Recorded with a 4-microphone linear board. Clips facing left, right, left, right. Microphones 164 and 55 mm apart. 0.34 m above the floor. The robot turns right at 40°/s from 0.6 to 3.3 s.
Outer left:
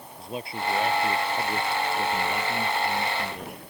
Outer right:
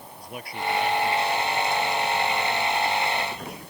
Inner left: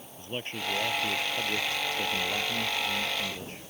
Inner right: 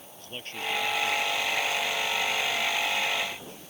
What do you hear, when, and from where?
0.2 s a man speaking: 20° left; by 3.7 s 130° left